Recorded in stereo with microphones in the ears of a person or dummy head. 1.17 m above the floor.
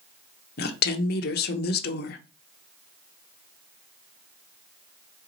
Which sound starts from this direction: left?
A woman speaking, at 0.6 s.